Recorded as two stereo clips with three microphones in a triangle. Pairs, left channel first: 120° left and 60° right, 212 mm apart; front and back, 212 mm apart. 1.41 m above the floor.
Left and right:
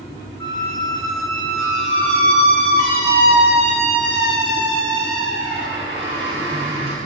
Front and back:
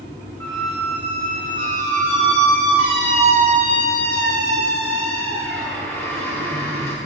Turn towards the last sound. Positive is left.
turn(degrees=-80)